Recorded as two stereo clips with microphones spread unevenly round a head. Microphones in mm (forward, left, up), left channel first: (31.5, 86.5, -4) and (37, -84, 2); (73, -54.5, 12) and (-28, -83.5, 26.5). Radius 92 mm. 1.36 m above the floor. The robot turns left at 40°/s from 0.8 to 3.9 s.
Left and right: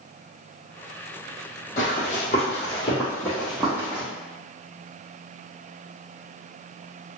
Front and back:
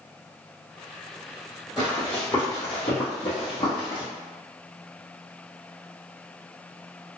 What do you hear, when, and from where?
1.8 s running footsteps: 120° left, 1.7 m; by 4.0 s 25° right, 2.0 m